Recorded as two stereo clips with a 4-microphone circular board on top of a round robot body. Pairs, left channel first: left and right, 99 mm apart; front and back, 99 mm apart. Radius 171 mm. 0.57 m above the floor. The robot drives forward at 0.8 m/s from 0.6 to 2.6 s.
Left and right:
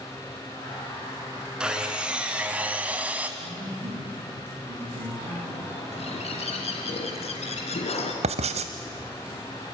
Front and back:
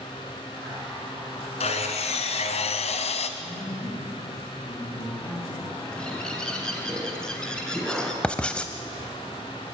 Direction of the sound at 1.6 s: 10° right.